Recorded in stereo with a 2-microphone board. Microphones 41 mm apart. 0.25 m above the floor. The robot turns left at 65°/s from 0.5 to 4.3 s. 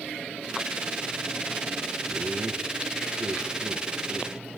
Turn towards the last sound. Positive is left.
turn(degrees=-5)  # may be behind; listen again after turning